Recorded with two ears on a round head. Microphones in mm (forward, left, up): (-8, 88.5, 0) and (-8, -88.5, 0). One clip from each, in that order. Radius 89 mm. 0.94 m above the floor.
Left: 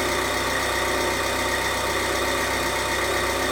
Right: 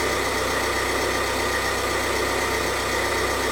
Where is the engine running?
15° left (ahead or behind), 1.7 m.